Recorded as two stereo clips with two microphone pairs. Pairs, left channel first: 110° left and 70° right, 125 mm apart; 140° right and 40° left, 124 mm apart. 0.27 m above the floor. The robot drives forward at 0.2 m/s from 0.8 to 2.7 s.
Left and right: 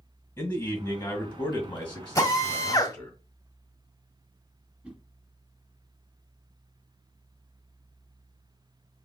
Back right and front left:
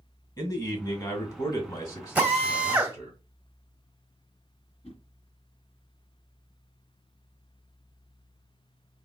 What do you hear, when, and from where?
0.4 s a man speaking: straight behind, 2 m
2.1 s a drill: 105° left, 1.6 m; by 3.0 s 110° left, 1.6 m
4.8 s a whoosh: 150° right, 1.7 m